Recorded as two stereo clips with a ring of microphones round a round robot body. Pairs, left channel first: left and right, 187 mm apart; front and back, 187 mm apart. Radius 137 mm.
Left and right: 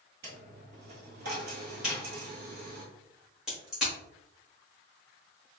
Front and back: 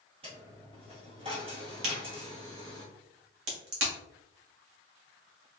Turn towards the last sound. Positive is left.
turn(degrees=-175)